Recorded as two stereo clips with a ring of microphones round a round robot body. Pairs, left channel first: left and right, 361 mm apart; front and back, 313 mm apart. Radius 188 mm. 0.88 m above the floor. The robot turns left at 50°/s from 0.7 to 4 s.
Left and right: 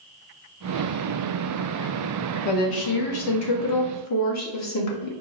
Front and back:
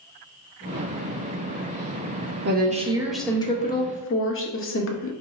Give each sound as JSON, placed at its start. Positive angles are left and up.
{"t": 2.5, "sound": "a woman speaking", "azimuth_deg": 125, "distance_m": 1.0}